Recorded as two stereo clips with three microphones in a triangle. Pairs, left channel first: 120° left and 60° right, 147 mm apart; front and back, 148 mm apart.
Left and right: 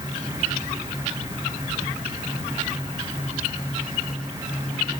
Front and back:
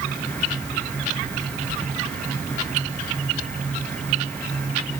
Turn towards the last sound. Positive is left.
No sound to turn to.